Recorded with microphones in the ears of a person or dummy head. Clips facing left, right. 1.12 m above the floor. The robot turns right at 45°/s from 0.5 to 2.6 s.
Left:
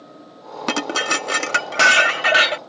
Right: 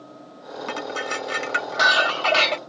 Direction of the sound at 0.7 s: 85° left.